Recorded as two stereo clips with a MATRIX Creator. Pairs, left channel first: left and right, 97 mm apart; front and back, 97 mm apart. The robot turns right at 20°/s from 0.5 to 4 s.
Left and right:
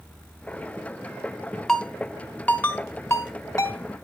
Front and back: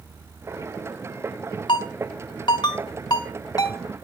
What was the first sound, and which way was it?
A ringtone, 5° left.